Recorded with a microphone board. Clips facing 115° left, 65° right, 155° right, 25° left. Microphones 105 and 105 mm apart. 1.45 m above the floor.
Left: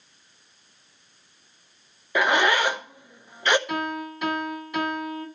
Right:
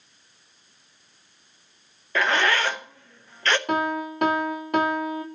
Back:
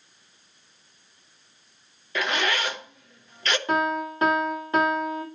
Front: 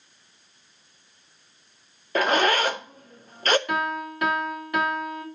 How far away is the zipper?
About 0.7 m.